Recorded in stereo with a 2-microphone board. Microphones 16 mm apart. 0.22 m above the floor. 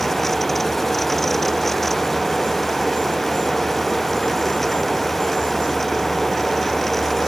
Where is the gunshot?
I don't hear a gunshot.